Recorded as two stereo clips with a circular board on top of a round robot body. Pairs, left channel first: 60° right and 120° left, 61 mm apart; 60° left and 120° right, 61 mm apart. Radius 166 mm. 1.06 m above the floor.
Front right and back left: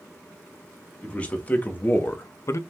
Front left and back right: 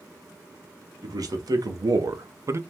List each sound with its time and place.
1.0 s a man speaking: 130° right, 1.1 m; by 2.6 s 80° right, 0.5 m